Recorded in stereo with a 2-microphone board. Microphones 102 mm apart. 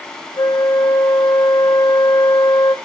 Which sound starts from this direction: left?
A flute, at 0.4 s.